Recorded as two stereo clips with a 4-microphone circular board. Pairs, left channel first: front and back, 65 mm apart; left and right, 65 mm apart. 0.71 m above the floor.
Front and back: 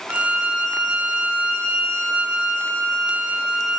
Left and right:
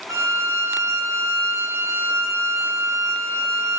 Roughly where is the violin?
Right.